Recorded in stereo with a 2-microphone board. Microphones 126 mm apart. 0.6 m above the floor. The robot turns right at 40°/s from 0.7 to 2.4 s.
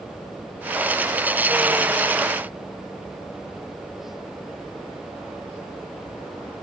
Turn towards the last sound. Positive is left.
No sound to turn to.